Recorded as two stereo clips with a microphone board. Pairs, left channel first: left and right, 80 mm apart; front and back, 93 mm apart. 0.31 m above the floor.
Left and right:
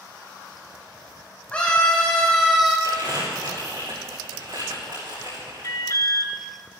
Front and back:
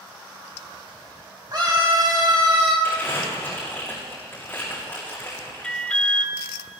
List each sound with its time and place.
1.5 s a scream: 155° left, 2.5 m; by 2.7 s straight behind, 3 m
2.8 s crumpling: 70° right, 7 m
5.6 s an alarm: 75° left, 0.8 m